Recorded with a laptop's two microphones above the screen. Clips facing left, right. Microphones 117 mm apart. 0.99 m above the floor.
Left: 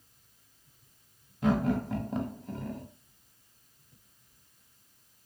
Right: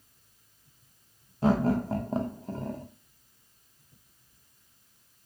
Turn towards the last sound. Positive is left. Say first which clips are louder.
# right 3 dB
turn(degrees=-35)  # may be behind; listen again after turning